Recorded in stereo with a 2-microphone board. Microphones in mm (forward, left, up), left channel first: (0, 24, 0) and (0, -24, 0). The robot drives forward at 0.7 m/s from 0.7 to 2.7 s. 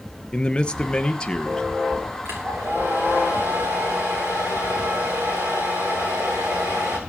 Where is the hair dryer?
55° right (ahead or behind), 6.5 m.